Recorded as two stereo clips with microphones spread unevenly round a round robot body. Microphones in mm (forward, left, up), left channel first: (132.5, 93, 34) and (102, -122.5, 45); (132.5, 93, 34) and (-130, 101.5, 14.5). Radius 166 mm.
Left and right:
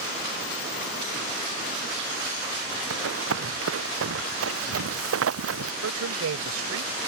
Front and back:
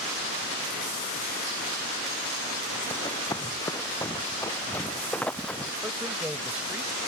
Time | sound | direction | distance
2.9 | running footsteps | 80° right | ?
5.8 | a man speaking | 95° right | ?